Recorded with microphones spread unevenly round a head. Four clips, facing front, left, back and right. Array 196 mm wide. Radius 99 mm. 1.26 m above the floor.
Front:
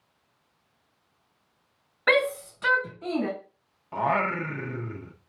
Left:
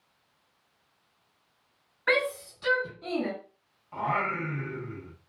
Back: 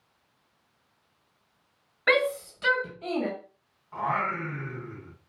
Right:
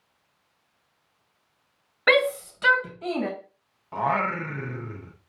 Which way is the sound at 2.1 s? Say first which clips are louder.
Right 6 dB, front 1 dB; 85° right.